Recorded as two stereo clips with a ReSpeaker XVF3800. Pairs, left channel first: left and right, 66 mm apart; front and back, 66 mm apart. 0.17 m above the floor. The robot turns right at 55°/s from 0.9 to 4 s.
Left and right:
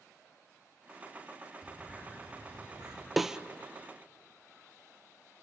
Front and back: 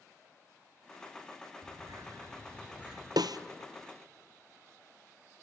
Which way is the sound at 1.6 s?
175° right.